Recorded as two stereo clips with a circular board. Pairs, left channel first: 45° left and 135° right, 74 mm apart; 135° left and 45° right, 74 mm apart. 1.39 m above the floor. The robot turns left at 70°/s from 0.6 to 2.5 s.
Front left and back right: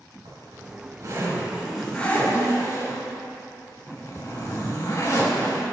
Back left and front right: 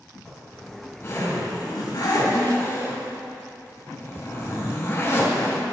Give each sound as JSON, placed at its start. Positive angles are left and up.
{"t": 0.2, "sound": "a zipper", "azimuth_deg": -140, "distance_m": 3.0}